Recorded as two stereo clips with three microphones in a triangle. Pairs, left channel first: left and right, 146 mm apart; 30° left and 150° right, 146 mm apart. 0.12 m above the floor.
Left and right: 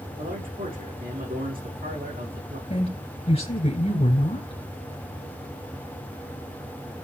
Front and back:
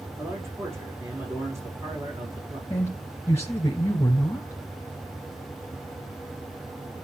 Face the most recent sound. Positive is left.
turn(degrees=90)